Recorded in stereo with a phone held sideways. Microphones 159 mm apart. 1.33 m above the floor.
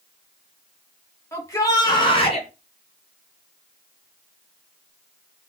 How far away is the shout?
About 3 m.